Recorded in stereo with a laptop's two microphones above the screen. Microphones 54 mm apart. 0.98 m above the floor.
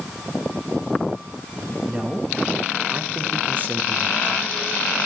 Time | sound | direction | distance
1.9 | a man speaking | 20° right (ahead or behind) | 1.7 m